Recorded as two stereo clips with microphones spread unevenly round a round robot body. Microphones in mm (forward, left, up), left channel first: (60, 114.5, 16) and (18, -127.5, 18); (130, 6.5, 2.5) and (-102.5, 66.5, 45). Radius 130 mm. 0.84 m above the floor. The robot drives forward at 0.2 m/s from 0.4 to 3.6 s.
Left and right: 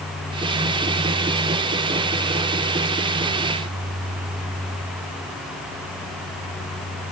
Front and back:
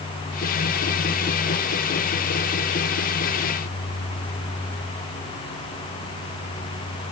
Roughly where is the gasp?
No gasp in this recording.